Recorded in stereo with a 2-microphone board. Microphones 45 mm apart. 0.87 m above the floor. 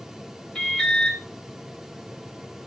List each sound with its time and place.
0.6 s an alarm: 20° left (ahead or behind), 3.5 m